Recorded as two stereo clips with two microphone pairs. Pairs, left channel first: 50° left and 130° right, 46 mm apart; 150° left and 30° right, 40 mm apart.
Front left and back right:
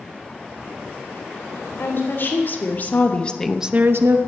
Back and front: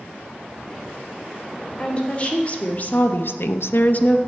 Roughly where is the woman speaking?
Left.